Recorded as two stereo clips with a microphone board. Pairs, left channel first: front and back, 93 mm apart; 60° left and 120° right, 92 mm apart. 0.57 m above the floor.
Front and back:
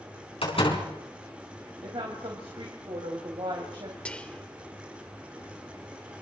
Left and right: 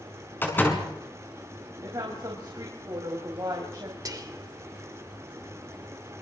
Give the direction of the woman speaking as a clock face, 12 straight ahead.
5 o'clock.